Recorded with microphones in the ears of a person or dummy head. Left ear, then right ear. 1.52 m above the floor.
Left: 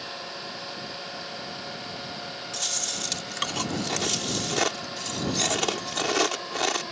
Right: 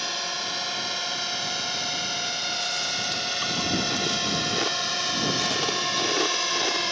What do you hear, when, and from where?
0.0 s a drone: 80° right; by 6.9 s 70° right (ahead or behind)
2.5 s chewing: 40° left (ahead or behind)